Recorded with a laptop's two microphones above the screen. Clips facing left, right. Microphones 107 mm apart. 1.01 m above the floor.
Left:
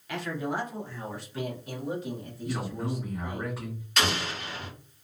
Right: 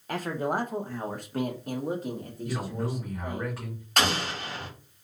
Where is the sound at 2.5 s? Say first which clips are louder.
Even; 5° left (ahead or behind), 2.5 m.